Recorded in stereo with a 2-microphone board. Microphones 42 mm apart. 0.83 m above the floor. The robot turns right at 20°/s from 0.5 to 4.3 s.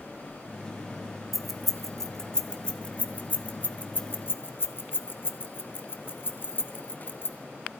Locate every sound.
1.3 s keys jangling: 5° right (ahead or behind), 0.9 m; by 7.4 s 50° left (ahead or behind), 0.9 m